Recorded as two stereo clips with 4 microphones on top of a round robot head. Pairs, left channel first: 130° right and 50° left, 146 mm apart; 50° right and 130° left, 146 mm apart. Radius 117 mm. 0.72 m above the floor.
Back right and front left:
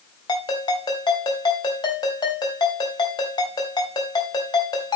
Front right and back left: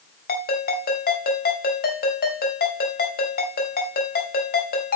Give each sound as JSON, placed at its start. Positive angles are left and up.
{"t": 0.3, "sound": "a ringtone", "azimuth_deg": -65, "distance_m": 3.5}